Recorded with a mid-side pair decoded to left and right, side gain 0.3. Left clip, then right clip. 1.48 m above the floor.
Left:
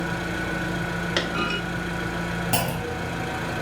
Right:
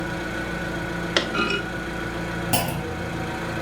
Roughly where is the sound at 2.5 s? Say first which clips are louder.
Right 1 dB; ahead.